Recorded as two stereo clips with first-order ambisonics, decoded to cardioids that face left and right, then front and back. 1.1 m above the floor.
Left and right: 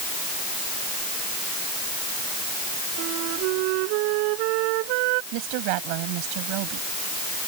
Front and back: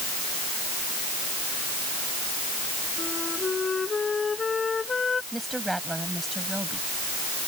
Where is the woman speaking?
95° right.